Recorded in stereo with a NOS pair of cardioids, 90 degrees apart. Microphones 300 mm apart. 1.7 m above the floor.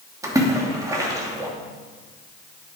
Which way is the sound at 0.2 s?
10° right.